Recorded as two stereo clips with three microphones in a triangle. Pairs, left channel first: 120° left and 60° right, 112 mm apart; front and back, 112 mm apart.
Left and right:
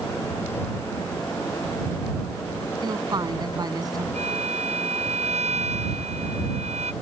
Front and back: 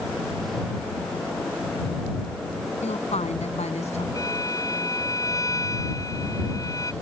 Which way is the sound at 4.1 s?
60° right.